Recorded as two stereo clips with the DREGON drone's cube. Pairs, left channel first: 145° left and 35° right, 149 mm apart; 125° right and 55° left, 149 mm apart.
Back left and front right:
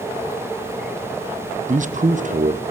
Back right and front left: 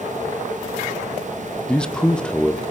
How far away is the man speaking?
About 2 m.